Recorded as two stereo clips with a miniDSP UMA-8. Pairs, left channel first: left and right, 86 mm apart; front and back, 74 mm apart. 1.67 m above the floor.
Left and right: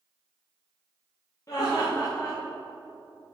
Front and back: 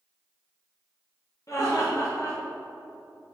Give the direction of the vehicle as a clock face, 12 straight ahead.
I don't hear a vehicle.